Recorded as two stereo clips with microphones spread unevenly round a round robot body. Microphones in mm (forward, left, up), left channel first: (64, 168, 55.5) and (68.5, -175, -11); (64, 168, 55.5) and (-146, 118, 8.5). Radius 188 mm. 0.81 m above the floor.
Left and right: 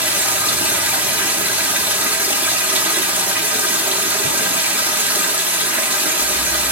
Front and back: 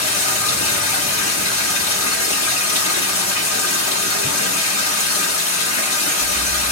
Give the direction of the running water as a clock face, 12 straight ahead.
12 o'clock.